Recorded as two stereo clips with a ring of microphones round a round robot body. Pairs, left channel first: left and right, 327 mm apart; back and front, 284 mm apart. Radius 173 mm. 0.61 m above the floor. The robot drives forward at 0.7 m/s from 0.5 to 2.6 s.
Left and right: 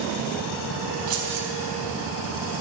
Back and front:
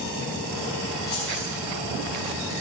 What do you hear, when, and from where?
1.1 s keys jangling: 100° right, 3.5 m; by 1.5 s 105° right, 3.5 m